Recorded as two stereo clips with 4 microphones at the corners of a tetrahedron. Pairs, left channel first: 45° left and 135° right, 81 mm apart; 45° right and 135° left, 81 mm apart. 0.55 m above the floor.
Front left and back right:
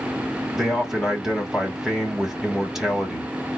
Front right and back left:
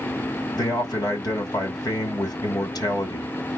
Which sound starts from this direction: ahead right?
A man speaking, at 0.5 s.